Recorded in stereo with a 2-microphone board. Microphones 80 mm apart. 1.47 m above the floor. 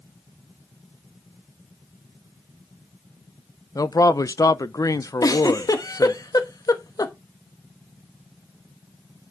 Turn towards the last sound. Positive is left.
turn(degrees=45)  # may be behind; listen again after turning